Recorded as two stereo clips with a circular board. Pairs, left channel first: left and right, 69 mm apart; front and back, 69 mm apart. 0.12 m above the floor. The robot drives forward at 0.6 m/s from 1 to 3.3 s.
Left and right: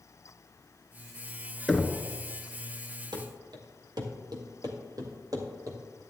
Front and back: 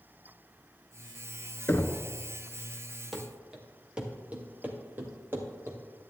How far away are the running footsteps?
About 2.5 m.